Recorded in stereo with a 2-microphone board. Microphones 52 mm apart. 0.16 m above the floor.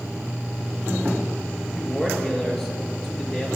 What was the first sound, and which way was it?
A man speaking, centre (ahead or behind).